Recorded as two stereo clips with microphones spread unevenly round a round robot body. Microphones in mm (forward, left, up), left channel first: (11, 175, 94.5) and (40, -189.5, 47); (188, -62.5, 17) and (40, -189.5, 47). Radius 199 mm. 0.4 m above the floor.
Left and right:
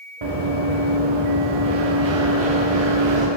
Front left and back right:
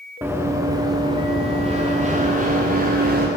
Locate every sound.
0.2 s running footsteps: 60° right, 2.5 m; by 3.3 s 100° right, 3 m